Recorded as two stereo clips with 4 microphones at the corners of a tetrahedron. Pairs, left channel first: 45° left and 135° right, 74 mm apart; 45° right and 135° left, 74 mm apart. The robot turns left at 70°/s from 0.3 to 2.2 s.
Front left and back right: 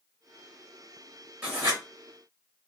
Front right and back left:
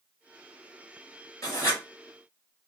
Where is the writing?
75° right, 2 m; by 1.8 s 100° right, 2 m.